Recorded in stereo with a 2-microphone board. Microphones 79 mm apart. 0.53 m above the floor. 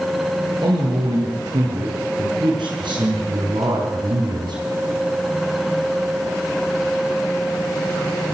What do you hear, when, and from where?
0.6 s a man speaking: 80° right, 8 m; by 4.6 s 70° right (ahead or behind), 4 m